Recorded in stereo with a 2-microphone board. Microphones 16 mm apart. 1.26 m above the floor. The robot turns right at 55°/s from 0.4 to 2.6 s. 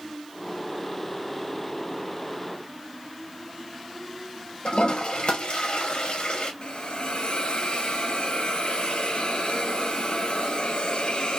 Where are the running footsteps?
No running footsteps in this recording.